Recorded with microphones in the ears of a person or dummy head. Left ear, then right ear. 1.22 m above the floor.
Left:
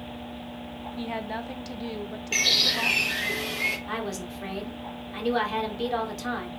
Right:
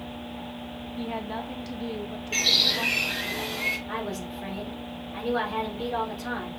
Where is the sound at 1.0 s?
20° left (ahead or behind), 0.6 m.